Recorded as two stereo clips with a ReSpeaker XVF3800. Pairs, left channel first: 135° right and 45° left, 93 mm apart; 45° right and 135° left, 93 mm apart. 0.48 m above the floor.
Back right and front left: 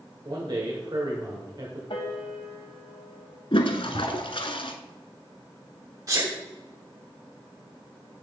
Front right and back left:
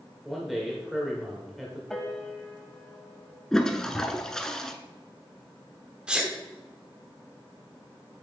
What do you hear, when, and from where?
0.2 s a man speaking: 50° left, 1.6 m
1.9 s a piano: 130° right, 1.3 m
3.5 s a toilet flushing: 130° right, 0.9 m
6.1 s a sneeze: 65° left, 0.8 m